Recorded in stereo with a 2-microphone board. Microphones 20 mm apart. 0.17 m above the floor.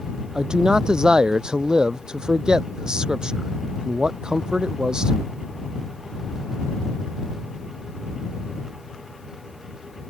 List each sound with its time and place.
0.3 s a man speaking: 35° right (ahead or behind)